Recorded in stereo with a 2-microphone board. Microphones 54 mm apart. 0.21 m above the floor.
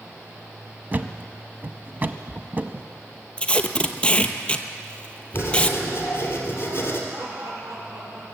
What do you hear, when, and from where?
0.9 s a thud: 35° right (ahead or behind), 0.7 m
3.4 s tape being pulled: 20° left (ahead or behind), 0.8 m
5.3 s writing: 40° left (ahead or behind), 3 m
7.1 s laughter: 80° right, 6.5 m